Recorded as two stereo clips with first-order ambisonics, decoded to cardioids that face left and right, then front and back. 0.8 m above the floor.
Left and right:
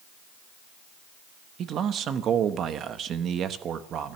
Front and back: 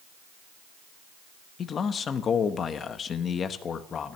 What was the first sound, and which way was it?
A man speaking, 50° right.